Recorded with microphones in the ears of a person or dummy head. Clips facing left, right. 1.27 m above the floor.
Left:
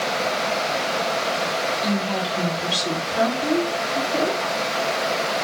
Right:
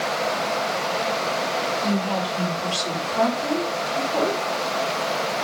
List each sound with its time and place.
1.8 s a woman speaking: 20° left (ahead or behind), 5.5 m; by 4.4 s 30° left (ahead or behind), 4 m